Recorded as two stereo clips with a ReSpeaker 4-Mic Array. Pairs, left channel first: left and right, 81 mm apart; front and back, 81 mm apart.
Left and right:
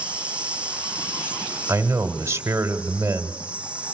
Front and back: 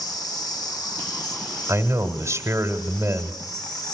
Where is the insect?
20° right, 1.4 m.